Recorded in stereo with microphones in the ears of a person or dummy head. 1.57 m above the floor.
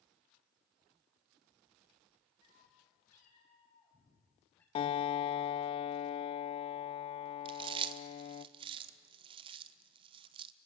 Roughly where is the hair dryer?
I don't hear a hair dryer.